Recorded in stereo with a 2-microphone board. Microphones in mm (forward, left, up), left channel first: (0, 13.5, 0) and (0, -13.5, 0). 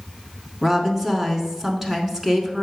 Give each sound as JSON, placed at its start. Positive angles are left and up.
{"t": 0.6, "sound": "a woman speaking", "side_deg": -10, "distance_m": 1.1}